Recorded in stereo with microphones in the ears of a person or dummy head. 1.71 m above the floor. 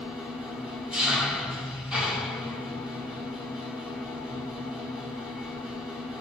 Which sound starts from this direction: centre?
An engine running, at 0.0 s.